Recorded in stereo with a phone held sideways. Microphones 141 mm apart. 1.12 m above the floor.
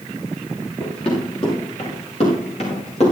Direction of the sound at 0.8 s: 45° left (ahead or behind).